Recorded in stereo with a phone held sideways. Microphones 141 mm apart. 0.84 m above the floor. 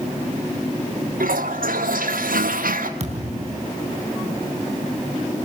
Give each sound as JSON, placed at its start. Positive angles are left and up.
{"t": 1.2, "sound": "a toilet flushing", "side_deg": -85, "distance_m": 2.0}
{"t": 3.0, "sound": "a thud", "side_deg": -50, "distance_m": 3.5}